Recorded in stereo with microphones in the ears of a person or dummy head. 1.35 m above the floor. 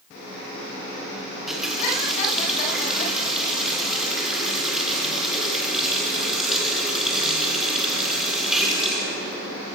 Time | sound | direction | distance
1.3 | a running tap | centre (ahead or behind) | 2.5 m